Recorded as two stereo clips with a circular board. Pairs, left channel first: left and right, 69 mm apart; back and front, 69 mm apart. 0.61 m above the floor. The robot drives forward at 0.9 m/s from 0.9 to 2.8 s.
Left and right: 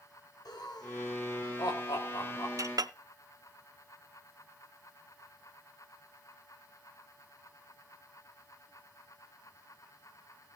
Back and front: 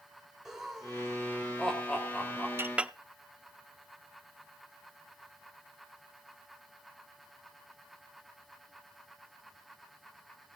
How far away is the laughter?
About 2.5 m.